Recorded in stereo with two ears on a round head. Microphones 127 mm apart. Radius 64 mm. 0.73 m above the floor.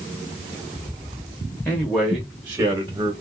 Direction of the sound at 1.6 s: 10° left (ahead or behind).